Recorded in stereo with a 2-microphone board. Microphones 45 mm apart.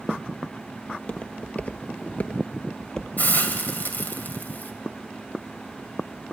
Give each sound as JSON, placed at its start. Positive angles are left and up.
{"t": 0.9, "sound": "footsteps", "side_deg": 20, "distance_m": 1.4}
{"t": 3.2, "sound": "a hiss", "side_deg": 40, "distance_m": 1.4}